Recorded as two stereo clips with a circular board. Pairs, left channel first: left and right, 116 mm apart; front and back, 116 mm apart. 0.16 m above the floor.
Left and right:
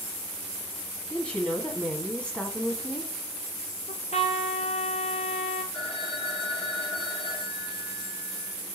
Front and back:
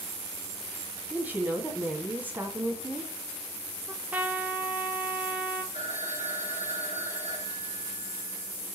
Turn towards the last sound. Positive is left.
turn(degrees=10)